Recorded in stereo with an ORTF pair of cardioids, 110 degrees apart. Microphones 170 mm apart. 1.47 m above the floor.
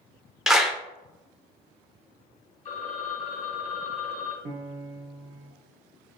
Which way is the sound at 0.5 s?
5° right.